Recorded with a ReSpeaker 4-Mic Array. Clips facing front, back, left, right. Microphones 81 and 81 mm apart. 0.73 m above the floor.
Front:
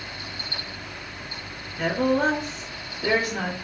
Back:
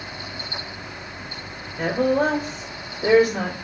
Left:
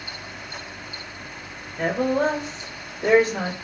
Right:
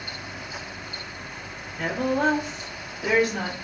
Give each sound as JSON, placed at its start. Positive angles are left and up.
{"t": 1.8, "sound": "a woman speaking", "azimuth_deg": 135, "distance_m": 2.0}